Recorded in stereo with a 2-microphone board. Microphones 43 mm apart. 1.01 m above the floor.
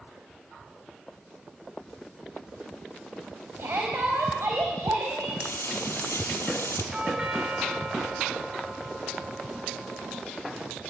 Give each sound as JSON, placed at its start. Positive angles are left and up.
{"t": 3.6, "sound": "a shout", "side_deg": -65, "distance_m": 5.0}
{"t": 5.4, "sound": "frying", "side_deg": 75, "distance_m": 6.0}
{"t": 6.9, "sound": "a doorbell", "side_deg": -20, "distance_m": 2.5}